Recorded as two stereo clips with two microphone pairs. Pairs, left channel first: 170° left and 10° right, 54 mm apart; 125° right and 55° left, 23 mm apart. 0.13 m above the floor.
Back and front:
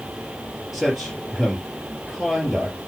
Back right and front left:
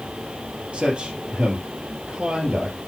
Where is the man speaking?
80° left, 3.5 m.